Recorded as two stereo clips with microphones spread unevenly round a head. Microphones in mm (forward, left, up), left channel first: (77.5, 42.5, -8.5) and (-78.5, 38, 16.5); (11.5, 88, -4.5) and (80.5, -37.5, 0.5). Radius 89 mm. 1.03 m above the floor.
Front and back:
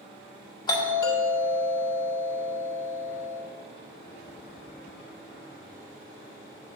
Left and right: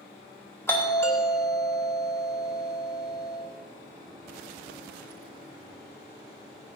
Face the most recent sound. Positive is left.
turn(degrees=50)